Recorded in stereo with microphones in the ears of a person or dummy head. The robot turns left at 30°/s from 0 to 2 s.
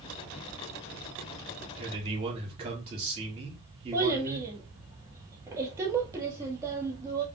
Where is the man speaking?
25° right (ahead or behind), 2 m; by 4.5 s 30° right (ahead or behind), 2 m.